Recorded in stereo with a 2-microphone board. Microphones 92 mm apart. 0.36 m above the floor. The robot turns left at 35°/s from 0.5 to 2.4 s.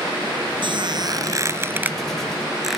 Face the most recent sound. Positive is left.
turn(degrees=180)